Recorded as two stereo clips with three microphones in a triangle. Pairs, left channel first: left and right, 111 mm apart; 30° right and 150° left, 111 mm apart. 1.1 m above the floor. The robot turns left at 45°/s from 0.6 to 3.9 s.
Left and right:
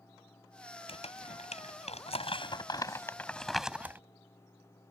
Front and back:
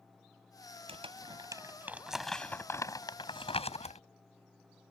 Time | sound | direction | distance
0.9 | crumpling | 120° left | ?